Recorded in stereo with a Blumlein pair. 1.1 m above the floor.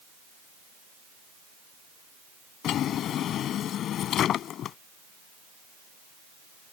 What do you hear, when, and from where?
2.6 s a drawer: 30° left